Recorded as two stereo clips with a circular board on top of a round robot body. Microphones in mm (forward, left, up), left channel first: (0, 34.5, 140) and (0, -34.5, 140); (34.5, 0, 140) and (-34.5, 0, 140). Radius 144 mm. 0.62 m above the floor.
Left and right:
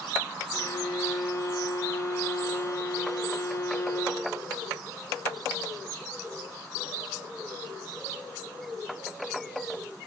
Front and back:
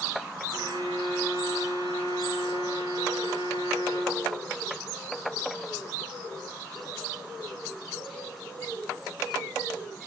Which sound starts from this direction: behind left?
A violin, at 0.5 s.